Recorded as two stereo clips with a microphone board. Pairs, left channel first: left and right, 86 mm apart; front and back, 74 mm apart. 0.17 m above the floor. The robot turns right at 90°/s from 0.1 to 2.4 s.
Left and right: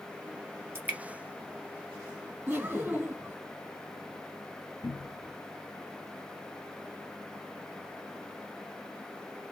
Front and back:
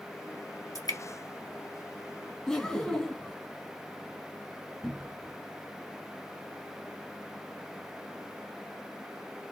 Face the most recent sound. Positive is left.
turn(degrees=95)